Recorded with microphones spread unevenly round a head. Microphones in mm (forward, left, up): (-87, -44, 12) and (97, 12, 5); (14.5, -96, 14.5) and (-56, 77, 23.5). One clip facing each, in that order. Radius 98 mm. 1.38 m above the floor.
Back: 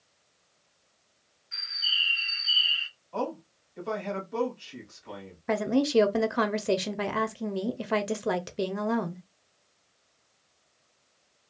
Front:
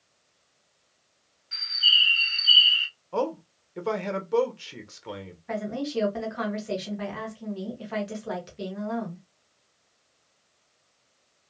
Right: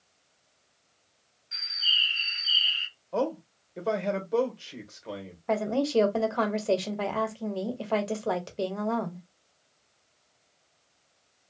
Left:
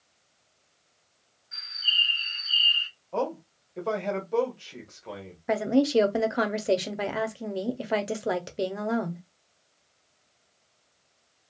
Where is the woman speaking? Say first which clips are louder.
Back 6 dB, left 4 dB; 175° right, 0.7 m.